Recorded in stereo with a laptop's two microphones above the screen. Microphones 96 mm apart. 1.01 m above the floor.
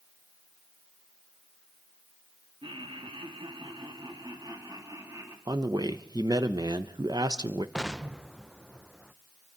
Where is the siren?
I don't hear a siren.